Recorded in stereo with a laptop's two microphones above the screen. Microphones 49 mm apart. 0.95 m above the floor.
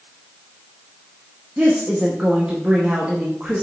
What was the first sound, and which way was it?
A woman speaking, 25° right (ahead or behind).